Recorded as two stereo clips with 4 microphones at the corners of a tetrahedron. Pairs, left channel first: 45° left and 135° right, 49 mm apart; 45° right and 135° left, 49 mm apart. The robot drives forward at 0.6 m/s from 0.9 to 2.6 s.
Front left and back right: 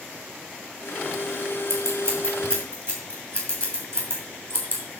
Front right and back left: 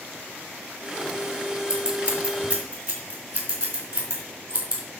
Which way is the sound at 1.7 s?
160° right.